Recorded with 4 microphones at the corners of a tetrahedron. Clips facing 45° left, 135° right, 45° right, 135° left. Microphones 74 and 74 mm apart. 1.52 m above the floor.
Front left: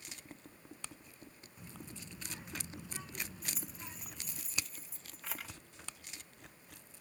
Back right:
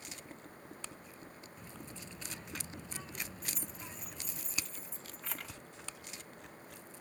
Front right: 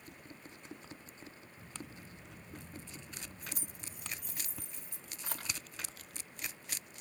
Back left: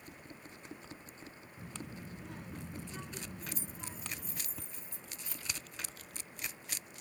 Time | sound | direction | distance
1.6 | a child speaking | 125° left | ?
3.4 | keys jangling | 40° right | ?